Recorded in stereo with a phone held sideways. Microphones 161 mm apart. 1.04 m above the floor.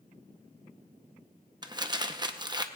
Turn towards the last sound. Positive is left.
turn(degrees=-25)  # may be behind; listen again after turning